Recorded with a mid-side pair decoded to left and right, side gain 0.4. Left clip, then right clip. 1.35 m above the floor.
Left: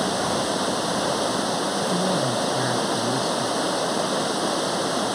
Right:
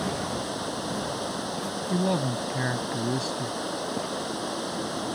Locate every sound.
0.0 s running water: 55° left
1.9 s a man speaking: 15° right